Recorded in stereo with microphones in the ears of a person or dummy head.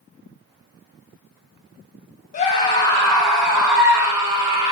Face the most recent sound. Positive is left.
turn(degrees=-20)  # may be behind; listen again after turning